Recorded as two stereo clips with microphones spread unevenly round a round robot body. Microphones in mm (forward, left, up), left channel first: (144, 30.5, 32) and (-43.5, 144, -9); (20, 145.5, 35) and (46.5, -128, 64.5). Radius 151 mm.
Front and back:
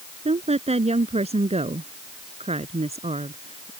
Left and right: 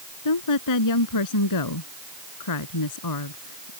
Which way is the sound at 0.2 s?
85° left.